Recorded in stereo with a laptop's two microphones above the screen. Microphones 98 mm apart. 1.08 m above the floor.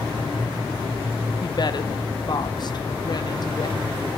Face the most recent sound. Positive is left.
turn(degrees=45)  # may be behind; listen again after turning